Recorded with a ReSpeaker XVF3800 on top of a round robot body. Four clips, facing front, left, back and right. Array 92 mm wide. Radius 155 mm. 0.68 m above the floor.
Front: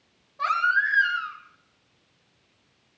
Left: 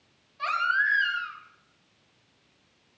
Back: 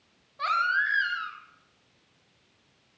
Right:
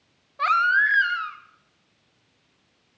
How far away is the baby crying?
About 1.4 m.